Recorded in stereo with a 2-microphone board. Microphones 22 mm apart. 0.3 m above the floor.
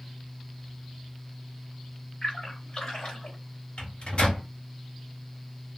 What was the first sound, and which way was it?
A splash, 40° left (ahead or behind).